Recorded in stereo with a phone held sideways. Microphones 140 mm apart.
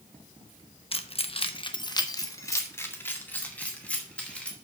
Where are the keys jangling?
45° left (ahead or behind), 1.0 m; by 4.5 s 10° left (ahead or behind), 3 m.